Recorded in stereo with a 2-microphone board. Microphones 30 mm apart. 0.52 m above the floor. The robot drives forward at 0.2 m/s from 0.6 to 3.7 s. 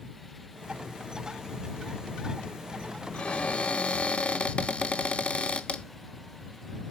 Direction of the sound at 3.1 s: 50° left (ahead or behind).